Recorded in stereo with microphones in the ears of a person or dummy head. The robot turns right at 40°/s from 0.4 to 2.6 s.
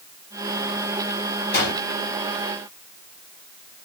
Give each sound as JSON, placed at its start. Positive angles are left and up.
{"t": 1.5, "sound": "a gunshot", "side_deg": 50, "distance_m": 1.6}